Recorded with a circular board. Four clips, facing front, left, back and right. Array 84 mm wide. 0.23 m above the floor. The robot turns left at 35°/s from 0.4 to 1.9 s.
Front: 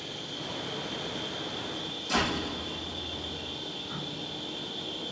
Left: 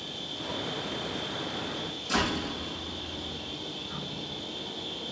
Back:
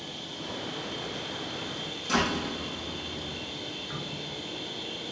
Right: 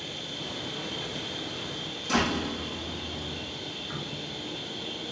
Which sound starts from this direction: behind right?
A door slam, at 2.1 s.